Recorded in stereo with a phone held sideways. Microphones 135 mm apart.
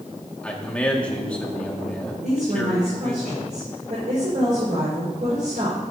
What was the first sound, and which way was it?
A man speaking, 10° left (ahead or behind).